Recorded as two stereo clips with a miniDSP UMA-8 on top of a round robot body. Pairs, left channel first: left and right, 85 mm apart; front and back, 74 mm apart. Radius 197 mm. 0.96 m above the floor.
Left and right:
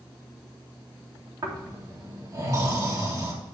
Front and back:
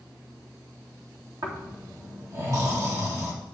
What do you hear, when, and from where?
1.4 s snoring: 135° right, 2.0 m